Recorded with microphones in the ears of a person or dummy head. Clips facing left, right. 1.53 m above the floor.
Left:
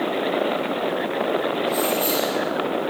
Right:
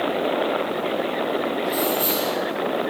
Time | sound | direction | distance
1.6 | keys jangling | 20° right (ahead or behind) | 0.7 m